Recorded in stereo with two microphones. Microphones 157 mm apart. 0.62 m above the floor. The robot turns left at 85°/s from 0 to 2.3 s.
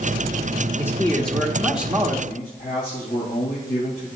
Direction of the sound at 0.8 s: 15° left (ahead or behind).